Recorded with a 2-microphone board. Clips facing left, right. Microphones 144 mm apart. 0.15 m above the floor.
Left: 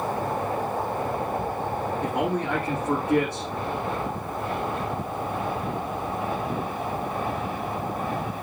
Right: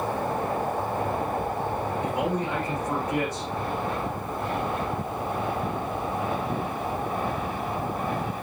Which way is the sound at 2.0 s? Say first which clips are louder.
Left 2 dB; 65° left (ahead or behind).